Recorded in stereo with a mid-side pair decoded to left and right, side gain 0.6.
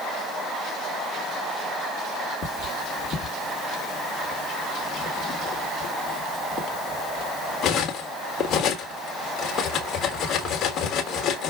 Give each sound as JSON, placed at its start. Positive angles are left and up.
{"t": 2.4, "sound": "cutlery clinking", "azimuth_deg": 50, "distance_m": 1.3}